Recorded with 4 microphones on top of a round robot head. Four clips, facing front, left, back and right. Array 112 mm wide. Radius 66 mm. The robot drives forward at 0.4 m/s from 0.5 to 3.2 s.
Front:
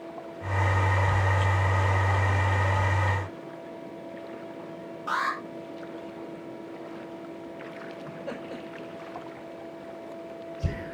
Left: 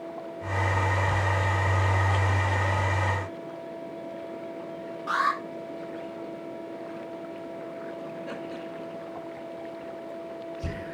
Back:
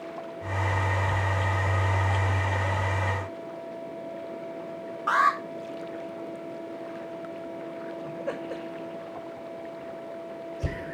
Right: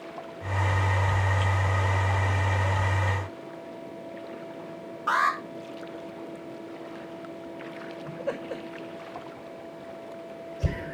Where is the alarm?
150° right, 4 m.